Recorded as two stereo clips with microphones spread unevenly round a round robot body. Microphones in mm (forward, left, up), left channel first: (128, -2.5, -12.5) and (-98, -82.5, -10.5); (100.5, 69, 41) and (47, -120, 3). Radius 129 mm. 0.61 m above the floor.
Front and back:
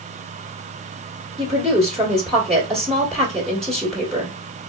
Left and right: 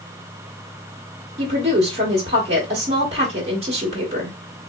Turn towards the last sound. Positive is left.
turn(degrees=-70)